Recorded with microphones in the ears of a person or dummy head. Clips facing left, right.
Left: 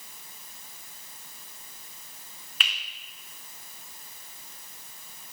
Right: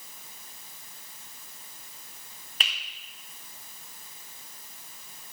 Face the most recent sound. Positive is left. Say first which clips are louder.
# even
turn(degrees=-35)  # may be behind; listen again after turning